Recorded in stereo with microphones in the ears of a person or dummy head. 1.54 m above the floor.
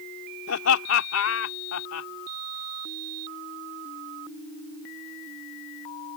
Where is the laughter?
85° left.